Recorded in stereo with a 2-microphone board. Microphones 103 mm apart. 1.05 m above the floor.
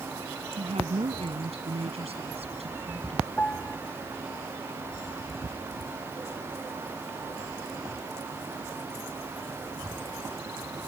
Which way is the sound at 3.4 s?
15° left (ahead or behind).